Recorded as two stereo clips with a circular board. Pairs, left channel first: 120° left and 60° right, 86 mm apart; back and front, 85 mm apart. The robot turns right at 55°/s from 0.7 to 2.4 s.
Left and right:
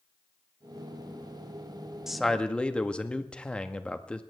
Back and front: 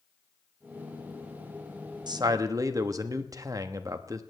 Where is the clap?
No clap in this recording.